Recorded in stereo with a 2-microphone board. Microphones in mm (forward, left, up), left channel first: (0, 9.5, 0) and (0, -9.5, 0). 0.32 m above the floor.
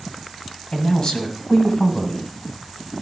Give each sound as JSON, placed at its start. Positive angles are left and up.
{"t": 0.7, "sound": "a man speaking", "side_deg": 45, "distance_m": 1.8}